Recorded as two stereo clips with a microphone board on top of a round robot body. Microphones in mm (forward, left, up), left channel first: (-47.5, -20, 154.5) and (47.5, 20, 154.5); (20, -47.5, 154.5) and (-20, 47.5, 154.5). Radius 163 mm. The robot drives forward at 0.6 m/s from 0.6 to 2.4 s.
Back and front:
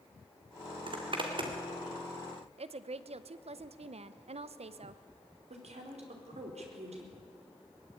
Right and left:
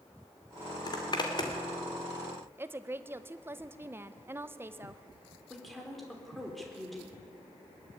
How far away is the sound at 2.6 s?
About 0.8 m.